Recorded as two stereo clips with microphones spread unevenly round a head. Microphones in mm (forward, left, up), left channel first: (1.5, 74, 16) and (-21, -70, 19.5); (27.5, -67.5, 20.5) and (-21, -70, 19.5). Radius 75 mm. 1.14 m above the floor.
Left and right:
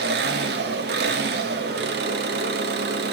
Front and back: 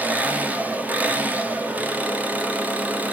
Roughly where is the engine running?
Behind right.